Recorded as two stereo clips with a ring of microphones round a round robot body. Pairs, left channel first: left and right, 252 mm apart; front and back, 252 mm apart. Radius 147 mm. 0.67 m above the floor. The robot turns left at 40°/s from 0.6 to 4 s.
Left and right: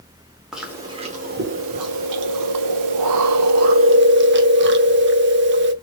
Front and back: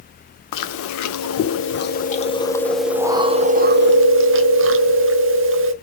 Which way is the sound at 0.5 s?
Straight ahead.